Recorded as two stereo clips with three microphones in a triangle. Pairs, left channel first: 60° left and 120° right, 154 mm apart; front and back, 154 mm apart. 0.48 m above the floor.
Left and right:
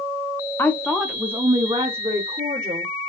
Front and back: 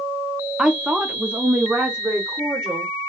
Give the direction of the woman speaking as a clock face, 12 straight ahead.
8 o'clock.